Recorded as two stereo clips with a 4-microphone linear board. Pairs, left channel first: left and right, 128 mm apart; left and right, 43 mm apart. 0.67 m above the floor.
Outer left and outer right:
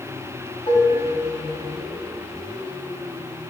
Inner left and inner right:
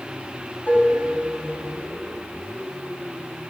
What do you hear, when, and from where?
0.7 s dishes clattering: 50° left (ahead or behind), 3.5 m